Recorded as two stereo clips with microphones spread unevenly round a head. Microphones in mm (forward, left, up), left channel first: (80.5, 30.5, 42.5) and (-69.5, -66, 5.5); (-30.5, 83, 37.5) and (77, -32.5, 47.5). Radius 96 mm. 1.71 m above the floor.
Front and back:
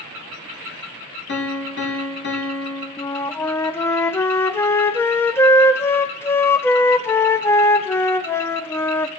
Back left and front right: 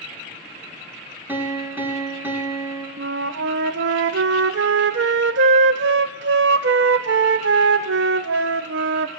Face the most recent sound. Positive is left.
turn(degrees=-40)